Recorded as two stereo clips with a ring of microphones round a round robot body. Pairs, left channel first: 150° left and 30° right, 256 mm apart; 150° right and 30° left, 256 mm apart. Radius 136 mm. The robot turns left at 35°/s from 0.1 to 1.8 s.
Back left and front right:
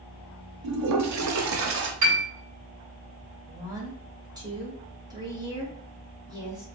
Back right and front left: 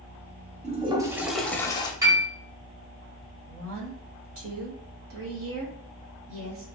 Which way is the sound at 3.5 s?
45° left.